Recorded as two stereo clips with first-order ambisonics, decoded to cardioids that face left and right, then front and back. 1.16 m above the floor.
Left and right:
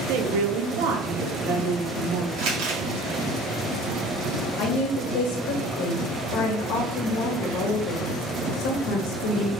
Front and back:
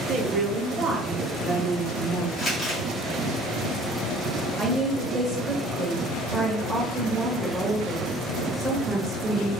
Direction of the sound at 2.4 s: 70° right.